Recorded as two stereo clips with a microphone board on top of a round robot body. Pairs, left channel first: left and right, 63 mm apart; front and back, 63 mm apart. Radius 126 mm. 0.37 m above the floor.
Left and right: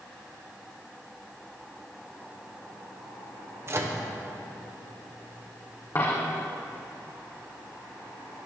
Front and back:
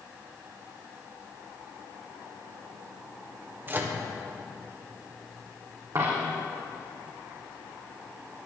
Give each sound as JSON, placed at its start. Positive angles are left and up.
{"t": 3.7, "sound": "a microwave", "azimuth_deg": -125, "distance_m": 1.6}
{"t": 6.0, "sound": "a dropped coin", "azimuth_deg": 140, "distance_m": 4.0}